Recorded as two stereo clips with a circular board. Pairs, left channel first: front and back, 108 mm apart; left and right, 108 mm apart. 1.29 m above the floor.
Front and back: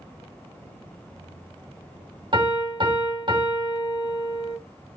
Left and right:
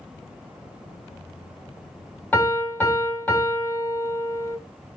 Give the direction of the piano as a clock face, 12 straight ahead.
7 o'clock.